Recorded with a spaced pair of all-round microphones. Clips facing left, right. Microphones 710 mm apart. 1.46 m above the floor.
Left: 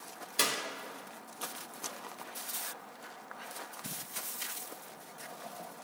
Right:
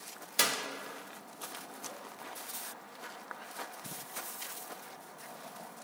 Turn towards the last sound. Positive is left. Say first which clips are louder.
# even
turn(degrees=-25)  # may be behind; listen again after turning